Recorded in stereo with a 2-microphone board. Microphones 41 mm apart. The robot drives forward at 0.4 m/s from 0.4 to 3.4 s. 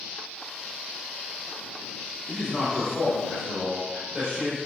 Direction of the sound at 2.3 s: 15° right (ahead or behind).